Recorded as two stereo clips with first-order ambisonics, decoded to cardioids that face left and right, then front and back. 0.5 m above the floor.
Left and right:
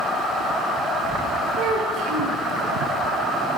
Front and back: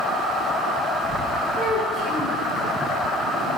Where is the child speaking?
105° right, 1.7 m.